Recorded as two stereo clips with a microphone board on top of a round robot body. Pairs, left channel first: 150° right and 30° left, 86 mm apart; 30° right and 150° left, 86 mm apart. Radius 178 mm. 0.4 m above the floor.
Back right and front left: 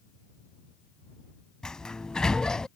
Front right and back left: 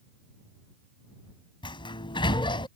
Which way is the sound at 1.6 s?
65° right.